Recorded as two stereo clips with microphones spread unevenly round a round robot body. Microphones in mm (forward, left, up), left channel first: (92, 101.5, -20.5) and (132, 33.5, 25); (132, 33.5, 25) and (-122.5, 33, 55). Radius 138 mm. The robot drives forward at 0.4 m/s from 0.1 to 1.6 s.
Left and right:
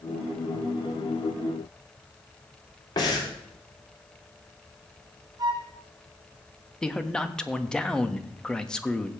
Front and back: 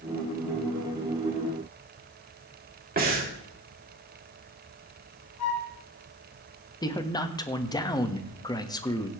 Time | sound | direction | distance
3.0 | breathing | 125° left | 2.5 m
5.4 | a flute | 30° right | 3.5 m
6.8 | a man speaking | 65° left | 1.3 m